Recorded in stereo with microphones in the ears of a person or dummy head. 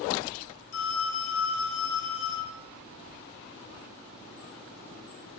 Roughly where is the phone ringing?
Left.